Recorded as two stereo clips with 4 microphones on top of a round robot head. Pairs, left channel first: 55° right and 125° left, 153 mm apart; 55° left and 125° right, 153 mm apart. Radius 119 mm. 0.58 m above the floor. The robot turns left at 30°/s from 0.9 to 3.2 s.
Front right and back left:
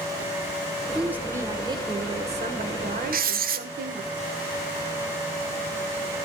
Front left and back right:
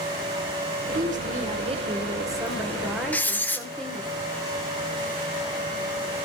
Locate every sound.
0.9 s a woman speaking: 150° right, 2.5 m; by 4.1 s 140° left, 2.5 m
3.1 s writing: 135° left, 1.6 m